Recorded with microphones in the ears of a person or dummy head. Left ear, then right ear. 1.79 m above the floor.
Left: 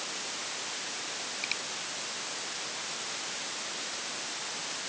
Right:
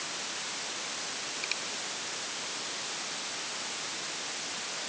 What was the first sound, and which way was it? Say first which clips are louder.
A finger snap: left 1 dB; 10° left (ahead or behind).